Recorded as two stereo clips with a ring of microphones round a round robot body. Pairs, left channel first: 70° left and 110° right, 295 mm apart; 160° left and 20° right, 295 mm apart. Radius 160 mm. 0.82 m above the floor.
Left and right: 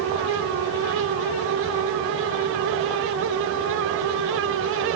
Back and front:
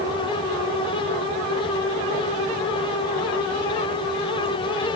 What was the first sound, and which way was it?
Only background noise.